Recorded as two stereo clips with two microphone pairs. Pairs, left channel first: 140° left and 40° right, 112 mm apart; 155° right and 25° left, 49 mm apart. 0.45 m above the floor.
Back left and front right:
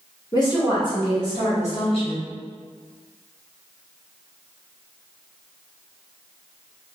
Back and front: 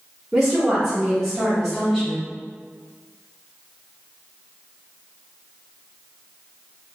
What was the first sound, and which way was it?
A woman speaking, 115° left.